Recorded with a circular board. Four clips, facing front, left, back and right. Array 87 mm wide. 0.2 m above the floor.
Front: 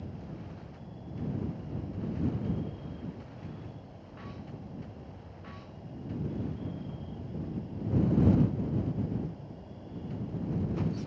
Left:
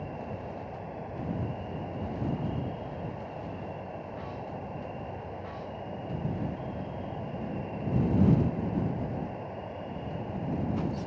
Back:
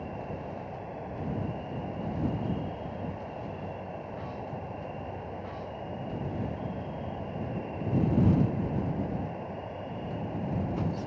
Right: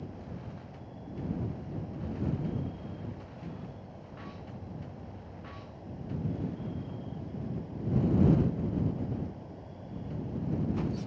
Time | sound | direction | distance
0.0 | an insect | 140° left | ?